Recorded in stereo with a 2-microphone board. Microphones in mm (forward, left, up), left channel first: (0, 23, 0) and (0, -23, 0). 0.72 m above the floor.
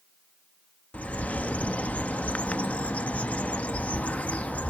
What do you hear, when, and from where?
0.9 s a bird: 35° left (ahead or behind), 0.7 m